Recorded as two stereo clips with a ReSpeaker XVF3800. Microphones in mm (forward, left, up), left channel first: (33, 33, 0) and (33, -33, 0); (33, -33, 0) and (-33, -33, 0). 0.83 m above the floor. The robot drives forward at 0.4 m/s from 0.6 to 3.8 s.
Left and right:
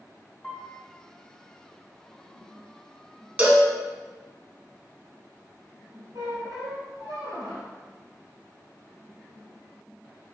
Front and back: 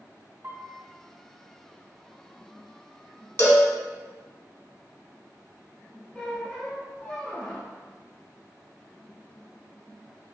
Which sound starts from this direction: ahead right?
A cowbell, at 3.4 s.